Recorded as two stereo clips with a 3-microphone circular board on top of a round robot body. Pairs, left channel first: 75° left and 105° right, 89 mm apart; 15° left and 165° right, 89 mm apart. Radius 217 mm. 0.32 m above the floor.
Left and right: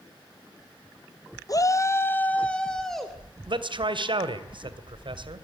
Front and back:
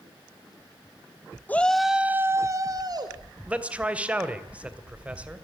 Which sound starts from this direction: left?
A shout, at 1.5 s.